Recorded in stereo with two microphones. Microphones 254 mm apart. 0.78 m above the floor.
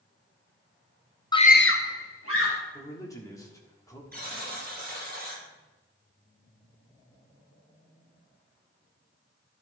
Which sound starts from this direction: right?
A buzzer, at 4.1 s.